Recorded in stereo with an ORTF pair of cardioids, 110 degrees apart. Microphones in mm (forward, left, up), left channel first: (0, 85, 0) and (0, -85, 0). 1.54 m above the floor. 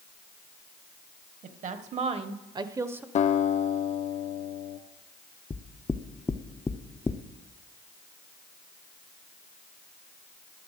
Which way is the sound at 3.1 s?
45° left.